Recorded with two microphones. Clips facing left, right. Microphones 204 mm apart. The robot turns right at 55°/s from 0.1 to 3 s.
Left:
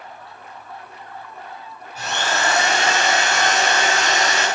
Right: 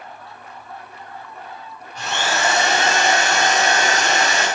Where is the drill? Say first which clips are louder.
Right 1 dB; 175° left, 5.5 m; by 4.5 s 130° right, 5.5 m.